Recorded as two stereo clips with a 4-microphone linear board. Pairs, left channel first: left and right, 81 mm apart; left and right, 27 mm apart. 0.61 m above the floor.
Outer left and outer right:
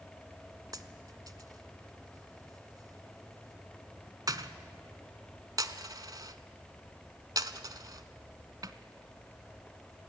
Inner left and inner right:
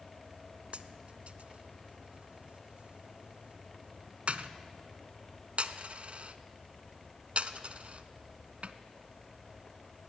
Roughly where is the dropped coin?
Right.